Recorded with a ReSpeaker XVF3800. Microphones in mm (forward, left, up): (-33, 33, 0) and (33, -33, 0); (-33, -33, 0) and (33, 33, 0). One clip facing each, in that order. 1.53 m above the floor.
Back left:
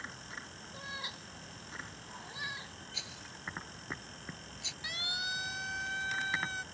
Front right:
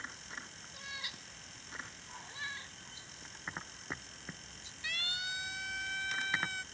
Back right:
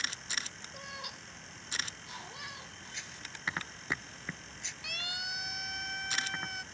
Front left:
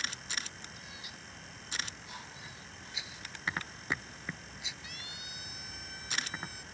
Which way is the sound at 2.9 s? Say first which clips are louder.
Back left 5 dB, front left 1 dB; 130° left.